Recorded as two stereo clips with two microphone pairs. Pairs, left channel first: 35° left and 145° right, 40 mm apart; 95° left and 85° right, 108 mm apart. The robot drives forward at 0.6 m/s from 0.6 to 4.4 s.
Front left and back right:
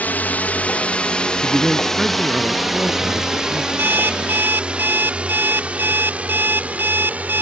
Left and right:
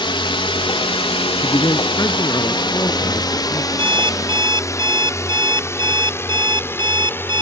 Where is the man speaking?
150° left.